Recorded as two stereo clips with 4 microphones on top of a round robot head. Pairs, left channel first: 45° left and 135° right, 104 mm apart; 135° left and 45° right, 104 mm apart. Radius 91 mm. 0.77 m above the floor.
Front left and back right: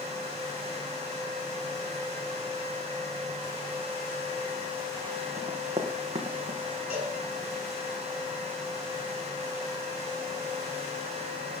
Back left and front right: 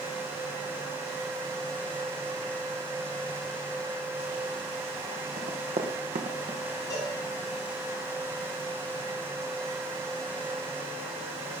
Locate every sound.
5.4 s running footsteps: 70° right, 4 m; by 6.6 s 80° right, 3.5 m
6.9 s a cowbell: 75° left, 7 m